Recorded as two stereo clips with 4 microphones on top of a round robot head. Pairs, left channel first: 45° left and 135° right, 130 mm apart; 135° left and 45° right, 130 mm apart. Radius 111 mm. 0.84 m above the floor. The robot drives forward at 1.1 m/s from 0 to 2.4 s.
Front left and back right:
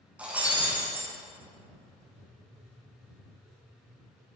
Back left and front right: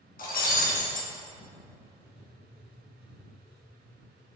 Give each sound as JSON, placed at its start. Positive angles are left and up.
{"t": 0.2, "sound": "breaking glass", "azimuth_deg": 145, "distance_m": 5.0}
{"t": 1.8, "sound": "writing", "azimuth_deg": -175, "distance_m": 6.0}